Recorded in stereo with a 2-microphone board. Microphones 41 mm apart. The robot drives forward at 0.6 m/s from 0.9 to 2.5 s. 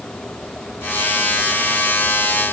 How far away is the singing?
No singing in this recording.